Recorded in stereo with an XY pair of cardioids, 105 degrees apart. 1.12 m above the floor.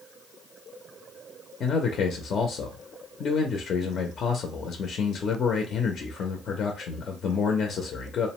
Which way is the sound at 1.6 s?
55° left.